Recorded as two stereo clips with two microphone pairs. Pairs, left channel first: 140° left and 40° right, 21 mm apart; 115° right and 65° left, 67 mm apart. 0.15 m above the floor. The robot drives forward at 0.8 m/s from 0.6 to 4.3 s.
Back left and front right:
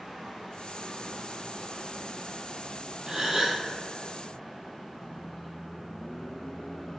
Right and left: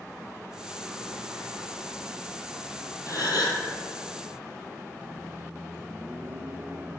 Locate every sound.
3.1 s a gasp: 95° right, 1.3 m; by 3.6 s 115° right, 1.4 m
5.0 s a microwave: 90° left, 1.1 m